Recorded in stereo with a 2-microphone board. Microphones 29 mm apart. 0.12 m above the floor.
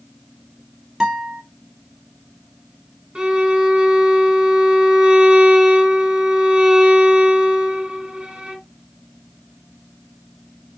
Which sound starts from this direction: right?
A violin, at 3.1 s.